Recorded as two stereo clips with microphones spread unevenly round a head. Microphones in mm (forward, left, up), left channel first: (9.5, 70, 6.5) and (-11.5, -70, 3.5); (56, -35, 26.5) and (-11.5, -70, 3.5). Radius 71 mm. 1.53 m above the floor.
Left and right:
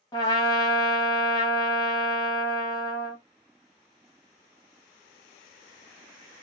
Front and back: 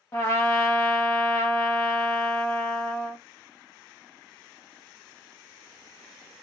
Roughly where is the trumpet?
Ahead left.